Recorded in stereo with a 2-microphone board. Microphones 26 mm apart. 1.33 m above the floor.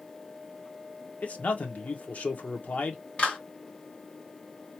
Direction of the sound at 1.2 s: 75° left (ahead or behind).